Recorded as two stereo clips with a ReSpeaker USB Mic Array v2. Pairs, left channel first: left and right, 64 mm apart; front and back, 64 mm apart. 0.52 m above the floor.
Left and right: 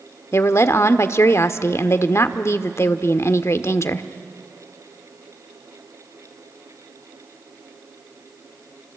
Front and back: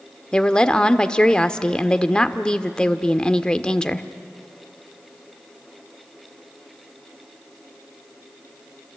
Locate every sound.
0.3 s a woman speaking: 70° left, 1.0 m